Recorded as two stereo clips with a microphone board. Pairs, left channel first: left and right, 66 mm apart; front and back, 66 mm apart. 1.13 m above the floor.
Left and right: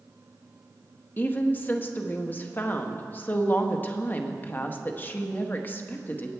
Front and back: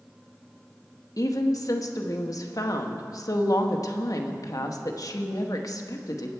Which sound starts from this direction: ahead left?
A woman speaking, at 1.2 s.